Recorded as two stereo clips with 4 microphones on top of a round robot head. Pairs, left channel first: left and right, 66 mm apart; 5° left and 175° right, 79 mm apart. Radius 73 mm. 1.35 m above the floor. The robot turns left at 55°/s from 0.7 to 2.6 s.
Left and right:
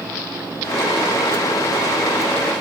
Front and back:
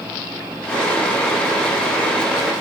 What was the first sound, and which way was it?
Only background noise.